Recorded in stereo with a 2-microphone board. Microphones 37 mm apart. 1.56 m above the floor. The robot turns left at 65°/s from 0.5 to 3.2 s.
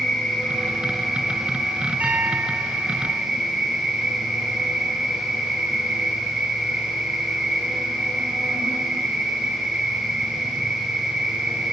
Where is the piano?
125° right, 3 m; by 3.3 s 160° left, 3 m.